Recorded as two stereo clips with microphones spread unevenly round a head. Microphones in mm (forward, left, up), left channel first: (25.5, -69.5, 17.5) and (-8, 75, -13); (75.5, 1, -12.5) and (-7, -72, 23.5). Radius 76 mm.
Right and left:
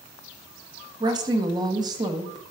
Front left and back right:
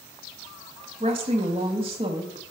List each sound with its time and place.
1.0 s a woman speaking: 165° left, 1.1 m